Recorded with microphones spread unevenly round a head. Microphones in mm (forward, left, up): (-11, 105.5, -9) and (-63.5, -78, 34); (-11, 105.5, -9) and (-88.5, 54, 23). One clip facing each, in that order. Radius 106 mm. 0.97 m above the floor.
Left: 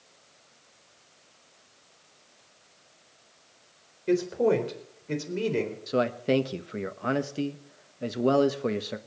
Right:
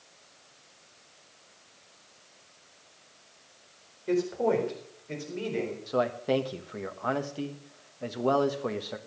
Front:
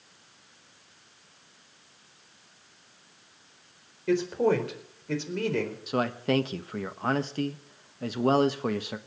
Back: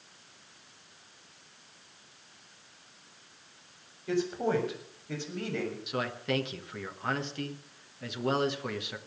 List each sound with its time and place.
4.1 s a man speaking: 15° left, 4 m; by 5.8 s 40° left, 4 m
5.9 s a man speaking: 25° left, 1.1 m